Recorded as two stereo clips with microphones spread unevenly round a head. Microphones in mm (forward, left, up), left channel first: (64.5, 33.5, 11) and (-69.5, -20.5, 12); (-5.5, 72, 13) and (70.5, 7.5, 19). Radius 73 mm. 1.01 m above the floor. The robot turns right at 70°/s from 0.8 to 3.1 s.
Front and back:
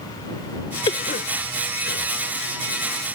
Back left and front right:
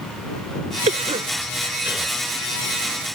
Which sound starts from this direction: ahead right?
A cough, at 0.9 s.